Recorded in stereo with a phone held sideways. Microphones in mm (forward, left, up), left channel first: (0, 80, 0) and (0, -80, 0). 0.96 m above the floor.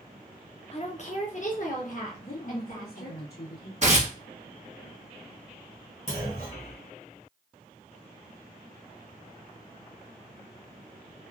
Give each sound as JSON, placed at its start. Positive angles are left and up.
{"t": 0.7, "sound": "a woman speaking", "side_deg": 40, "distance_m": 0.5}
{"t": 2.2, "sound": "a woman speaking", "side_deg": 80, "distance_m": 1.9}
{"t": 3.8, "sound": "tearing paper", "side_deg": -45, "distance_m": 1.0}
{"t": 6.1, "sound": "a clunk", "side_deg": 60, "distance_m": 1.9}